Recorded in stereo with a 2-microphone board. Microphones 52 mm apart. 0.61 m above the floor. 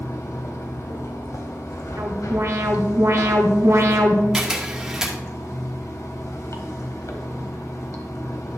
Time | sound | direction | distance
0.0 | running water | 80° left | 1.0 m
2.0 | an alarm | 75° right (ahead or behind) | 1.1 m
4.3 | a camera shutter | 10° right (ahead or behind) | 1.6 m